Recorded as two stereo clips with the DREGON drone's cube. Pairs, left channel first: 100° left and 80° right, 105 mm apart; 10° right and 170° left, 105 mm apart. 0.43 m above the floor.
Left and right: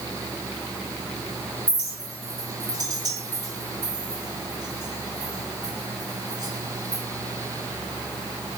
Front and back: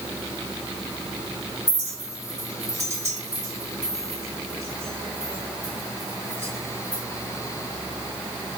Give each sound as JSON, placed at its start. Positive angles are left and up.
{"t": 1.7, "sound": "a clink", "azimuth_deg": -130, "distance_m": 3.0}